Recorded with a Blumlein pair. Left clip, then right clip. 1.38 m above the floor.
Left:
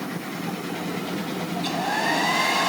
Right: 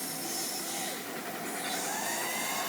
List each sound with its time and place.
1.6 s a hair dryer: 35° left